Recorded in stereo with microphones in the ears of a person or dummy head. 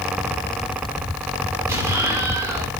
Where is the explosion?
15° right (ahead or behind), 8 m.